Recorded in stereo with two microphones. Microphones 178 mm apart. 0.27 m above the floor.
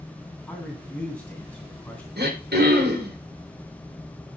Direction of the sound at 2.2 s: 65° right (ahead or behind).